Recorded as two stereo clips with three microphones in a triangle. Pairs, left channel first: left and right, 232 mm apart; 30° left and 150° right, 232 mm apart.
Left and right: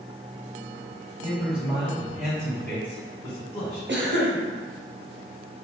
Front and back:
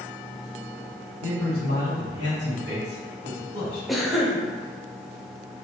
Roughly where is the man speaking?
Behind right.